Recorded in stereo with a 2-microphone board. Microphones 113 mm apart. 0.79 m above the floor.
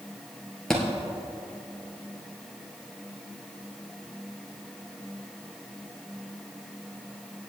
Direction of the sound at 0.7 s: 5° left (ahead or behind).